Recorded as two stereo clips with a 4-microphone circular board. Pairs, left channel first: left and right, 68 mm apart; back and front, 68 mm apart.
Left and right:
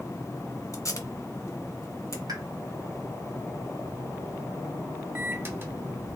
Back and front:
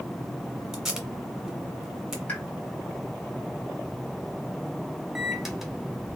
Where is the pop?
110° right, 1.6 m.